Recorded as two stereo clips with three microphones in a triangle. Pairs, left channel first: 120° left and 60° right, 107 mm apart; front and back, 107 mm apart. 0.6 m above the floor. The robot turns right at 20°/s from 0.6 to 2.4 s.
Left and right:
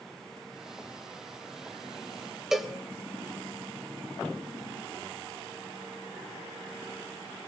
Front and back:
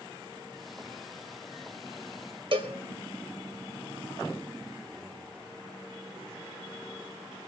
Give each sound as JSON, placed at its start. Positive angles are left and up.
{"t": 2.5, "sound": "a cowbell", "azimuth_deg": -145, "distance_m": 1.8}